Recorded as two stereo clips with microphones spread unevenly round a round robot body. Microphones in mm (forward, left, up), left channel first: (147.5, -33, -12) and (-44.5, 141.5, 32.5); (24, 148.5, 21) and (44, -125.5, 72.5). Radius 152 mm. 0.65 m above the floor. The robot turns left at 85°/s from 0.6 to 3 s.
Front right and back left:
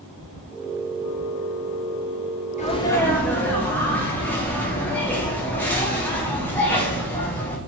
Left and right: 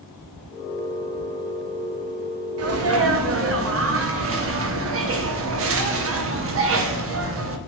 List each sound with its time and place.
2.6 s a sneeze: 75° right, 0.7 m; by 7.6 s 110° right, 0.7 m